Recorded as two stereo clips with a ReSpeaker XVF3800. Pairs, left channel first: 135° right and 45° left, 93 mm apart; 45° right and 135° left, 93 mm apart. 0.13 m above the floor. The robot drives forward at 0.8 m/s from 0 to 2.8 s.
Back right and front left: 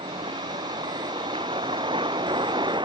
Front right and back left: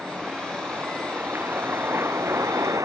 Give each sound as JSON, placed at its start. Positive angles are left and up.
{"t": 0.0, "sound": "a vehicle", "azimuth_deg": 55}